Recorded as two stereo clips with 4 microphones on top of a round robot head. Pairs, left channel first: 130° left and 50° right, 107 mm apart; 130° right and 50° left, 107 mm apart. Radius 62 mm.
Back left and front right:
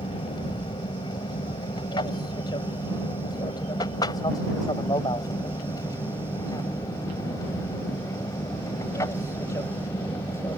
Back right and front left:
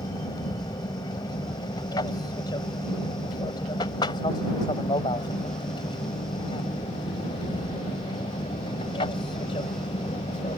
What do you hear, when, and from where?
0.0 s an aircraft: 175° left; by 10.6 s 165° right